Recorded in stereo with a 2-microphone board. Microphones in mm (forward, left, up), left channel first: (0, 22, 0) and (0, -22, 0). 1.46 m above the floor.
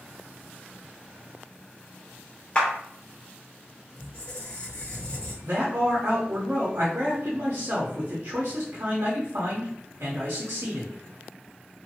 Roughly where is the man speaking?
Right.